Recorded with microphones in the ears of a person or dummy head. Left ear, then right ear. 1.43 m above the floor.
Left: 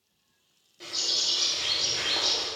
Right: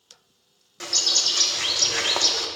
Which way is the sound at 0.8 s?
50° right (ahead or behind).